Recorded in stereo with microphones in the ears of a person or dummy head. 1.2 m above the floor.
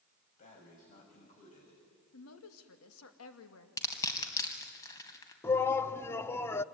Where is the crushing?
20° left (ahead or behind), 3 m.